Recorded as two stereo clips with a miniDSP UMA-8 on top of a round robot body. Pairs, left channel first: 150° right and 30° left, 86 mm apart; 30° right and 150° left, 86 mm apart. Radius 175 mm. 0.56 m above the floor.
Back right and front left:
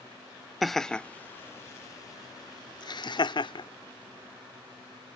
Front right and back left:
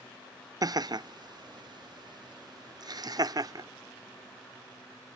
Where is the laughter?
120° left; by 3.7 s 170° right.